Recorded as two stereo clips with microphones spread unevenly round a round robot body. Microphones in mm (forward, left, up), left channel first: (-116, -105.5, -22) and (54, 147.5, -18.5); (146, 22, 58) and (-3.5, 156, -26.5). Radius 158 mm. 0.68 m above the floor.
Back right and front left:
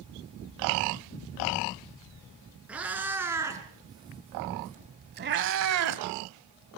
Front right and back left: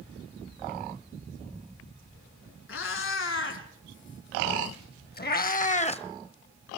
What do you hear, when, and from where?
2.7 s a cat meowing: 30° right, 3.5 m; by 6.0 s 20° left, 1.3 m